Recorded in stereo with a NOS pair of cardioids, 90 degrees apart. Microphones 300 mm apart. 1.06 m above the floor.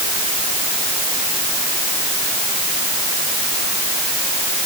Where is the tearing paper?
I don't hear tearing paper.